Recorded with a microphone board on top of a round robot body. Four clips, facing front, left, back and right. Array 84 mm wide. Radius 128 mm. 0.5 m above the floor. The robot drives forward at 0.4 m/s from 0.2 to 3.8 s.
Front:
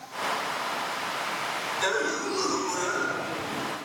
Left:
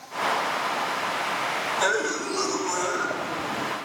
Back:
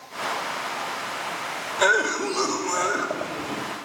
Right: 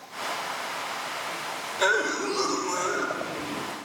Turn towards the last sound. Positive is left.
turn(degrees=-170)